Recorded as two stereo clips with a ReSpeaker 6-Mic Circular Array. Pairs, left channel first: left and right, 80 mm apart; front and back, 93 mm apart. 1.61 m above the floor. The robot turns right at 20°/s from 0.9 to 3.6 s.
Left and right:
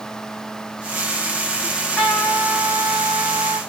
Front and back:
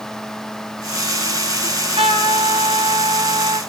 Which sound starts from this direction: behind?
A trumpet, at 1.6 s.